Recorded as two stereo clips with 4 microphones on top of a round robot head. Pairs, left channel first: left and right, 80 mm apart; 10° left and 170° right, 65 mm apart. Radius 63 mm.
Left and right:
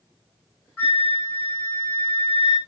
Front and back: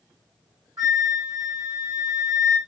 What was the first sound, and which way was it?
A flute, 155° left.